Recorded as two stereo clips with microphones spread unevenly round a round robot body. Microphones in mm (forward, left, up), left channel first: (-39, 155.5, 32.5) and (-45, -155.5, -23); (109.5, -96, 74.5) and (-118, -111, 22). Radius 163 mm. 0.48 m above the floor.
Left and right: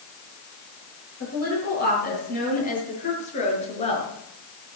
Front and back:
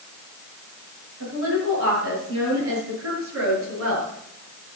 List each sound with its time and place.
1.2 s a woman speaking: 145° left, 10 m; by 4.1 s 160° left, 6.5 m